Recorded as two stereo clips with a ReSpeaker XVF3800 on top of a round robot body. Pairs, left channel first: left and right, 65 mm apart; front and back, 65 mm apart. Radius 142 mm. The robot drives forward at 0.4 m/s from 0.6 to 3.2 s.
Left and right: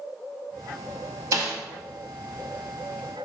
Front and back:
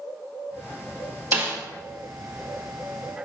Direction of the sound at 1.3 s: 120° right.